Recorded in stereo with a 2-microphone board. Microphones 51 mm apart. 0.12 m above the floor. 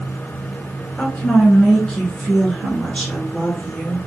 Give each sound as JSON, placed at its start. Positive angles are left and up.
{"t": 1.0, "sound": "a woman speaking", "side_deg": 20, "distance_m": 1.3}